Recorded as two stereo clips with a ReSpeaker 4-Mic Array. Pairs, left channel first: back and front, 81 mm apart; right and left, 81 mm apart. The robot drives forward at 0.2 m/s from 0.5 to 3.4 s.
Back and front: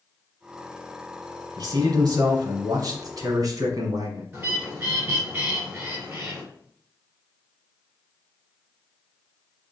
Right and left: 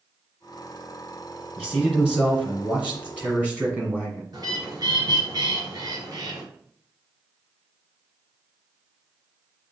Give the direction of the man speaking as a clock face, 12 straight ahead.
12 o'clock.